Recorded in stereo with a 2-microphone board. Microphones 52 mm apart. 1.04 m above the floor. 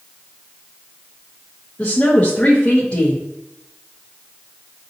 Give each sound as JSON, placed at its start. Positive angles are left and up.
{"t": 1.8, "sound": "a woman speaking", "side_deg": 25, "distance_m": 1.1}